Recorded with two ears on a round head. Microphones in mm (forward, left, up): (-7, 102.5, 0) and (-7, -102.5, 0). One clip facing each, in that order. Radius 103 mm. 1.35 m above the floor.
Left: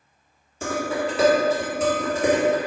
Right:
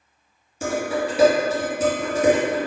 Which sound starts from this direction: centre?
Dishes clattering, at 0.6 s.